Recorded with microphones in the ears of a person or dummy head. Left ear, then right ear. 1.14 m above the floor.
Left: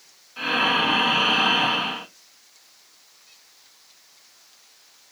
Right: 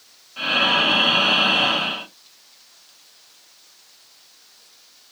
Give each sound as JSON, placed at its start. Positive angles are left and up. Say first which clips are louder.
{"t": 0.4, "sound": "breathing", "louder": "right 3 dB", "side_deg": 0, "distance_m": 0.8}